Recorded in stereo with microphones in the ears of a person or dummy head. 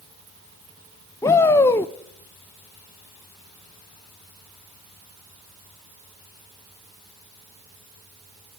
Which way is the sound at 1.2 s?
25° left (ahead or behind).